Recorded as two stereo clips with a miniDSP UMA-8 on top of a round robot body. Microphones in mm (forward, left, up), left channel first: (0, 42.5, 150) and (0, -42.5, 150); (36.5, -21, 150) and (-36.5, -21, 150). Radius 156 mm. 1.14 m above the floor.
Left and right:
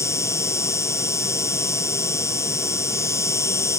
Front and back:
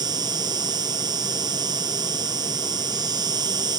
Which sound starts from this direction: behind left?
An insect, at 0.0 s.